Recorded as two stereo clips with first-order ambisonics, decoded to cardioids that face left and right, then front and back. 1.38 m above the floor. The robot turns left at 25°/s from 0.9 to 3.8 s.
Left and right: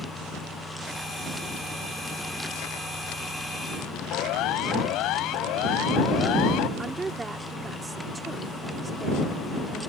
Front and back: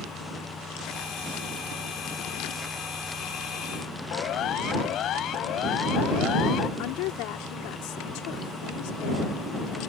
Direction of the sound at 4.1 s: 50° left.